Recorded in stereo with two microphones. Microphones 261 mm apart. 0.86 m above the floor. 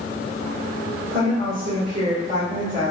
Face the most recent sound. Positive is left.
turn(degrees=-45)  # may be behind; listen again after turning